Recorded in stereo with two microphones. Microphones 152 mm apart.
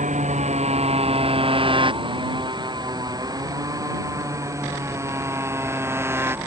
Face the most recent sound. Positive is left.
turn(degrees=-15)  # may be behind; listen again after turning